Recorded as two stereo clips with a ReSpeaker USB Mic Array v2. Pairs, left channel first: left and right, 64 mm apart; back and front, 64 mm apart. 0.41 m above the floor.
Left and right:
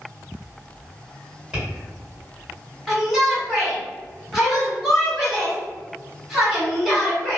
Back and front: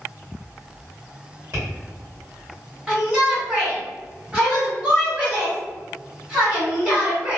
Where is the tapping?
15° right, 1.7 m.